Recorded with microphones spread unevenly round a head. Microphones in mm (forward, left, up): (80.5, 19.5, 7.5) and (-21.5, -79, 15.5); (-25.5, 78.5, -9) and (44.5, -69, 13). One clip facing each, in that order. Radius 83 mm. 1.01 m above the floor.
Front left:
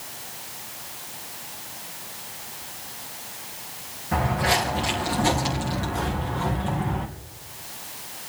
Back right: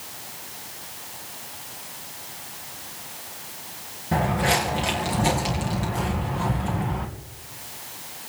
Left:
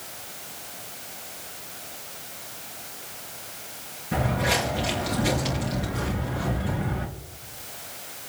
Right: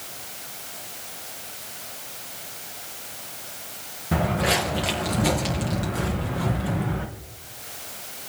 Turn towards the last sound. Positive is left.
turn(degrees=-50)